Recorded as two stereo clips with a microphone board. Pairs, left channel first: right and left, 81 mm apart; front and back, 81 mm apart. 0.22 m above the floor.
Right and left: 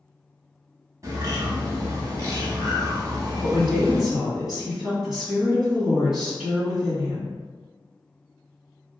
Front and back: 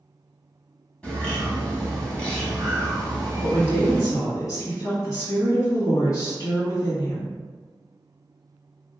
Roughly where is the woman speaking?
Ahead.